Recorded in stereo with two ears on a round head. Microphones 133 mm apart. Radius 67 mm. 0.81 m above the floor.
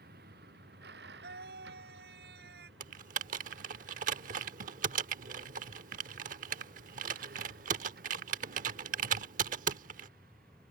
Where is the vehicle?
65° right (ahead or behind).